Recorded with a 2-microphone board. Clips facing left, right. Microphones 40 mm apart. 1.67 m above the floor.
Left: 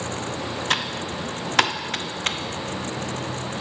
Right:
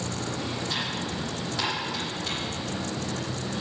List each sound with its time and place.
0.7 s typing on a keyboard: 80° left, 0.8 m